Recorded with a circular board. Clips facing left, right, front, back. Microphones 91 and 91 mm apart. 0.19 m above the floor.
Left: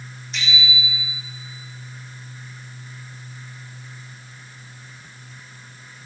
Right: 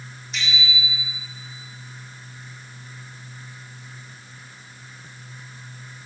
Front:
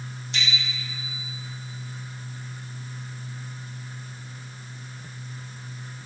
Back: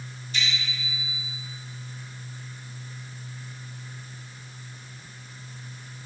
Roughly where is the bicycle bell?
Ahead.